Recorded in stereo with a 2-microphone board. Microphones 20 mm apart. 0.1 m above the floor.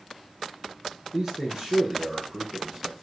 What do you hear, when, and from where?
1.1 s a man speaking: 15° right (ahead or behind), 1.5 m